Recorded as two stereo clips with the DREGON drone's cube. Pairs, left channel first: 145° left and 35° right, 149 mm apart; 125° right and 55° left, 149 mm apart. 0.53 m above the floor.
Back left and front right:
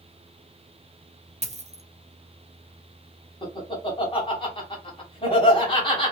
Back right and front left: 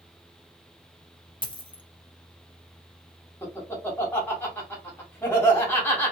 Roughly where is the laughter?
Behind.